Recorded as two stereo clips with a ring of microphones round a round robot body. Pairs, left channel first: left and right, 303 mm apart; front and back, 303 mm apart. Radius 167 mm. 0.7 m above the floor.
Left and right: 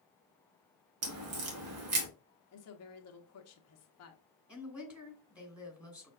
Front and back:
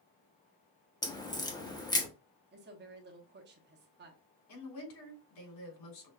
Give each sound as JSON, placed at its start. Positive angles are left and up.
{"t": 1.0, "sound": "a crack", "azimuth_deg": -75, "distance_m": 1.1}
{"t": 2.5, "sound": "a woman speaking", "azimuth_deg": 125, "distance_m": 0.9}
{"t": 4.5, "sound": "a woman speaking", "azimuth_deg": -5, "distance_m": 3.0}